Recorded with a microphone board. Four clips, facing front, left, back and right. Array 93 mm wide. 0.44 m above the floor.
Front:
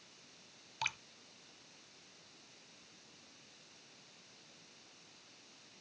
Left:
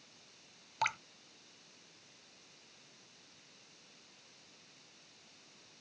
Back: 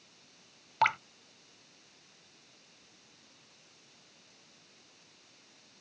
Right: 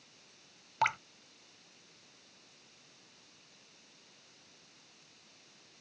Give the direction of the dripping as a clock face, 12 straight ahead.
5 o'clock.